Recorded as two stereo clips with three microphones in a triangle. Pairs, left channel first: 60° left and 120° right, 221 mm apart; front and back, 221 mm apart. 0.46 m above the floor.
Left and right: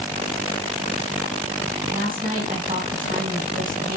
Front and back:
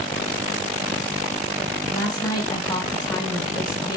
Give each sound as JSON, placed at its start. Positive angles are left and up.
{"t": 1.9, "sound": "a woman speaking", "azimuth_deg": -70, "distance_m": 3.5}